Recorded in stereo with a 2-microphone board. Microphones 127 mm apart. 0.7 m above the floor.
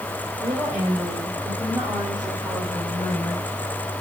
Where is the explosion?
I don't hear an explosion.